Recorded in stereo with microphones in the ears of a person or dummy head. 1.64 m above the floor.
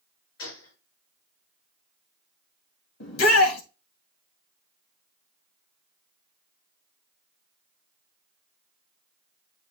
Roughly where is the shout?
Left.